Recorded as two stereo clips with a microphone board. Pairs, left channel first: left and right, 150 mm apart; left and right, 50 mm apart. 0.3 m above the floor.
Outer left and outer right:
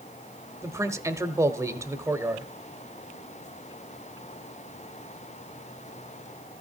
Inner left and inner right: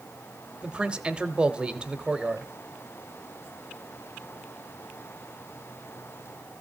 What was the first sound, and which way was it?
A man speaking, 20° right (ahead or behind).